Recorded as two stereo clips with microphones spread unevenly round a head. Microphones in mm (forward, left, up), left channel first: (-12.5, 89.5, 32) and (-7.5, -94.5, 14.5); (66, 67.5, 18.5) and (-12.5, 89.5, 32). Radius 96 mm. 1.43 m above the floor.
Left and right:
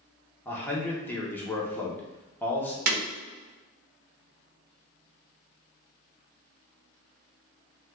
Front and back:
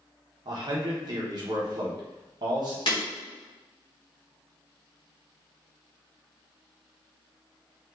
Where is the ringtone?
No ringtone in this recording.